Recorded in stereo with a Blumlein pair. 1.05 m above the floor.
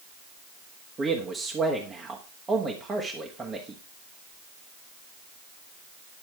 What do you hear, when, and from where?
1.0 s a man speaking: 15° right, 1.6 m